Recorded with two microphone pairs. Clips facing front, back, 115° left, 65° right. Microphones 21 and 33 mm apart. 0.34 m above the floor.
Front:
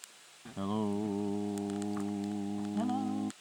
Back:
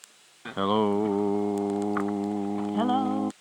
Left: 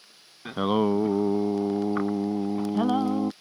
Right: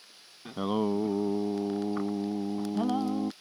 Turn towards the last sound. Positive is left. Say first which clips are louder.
# back 10 dB, left 5 dB
turn(degrees=165)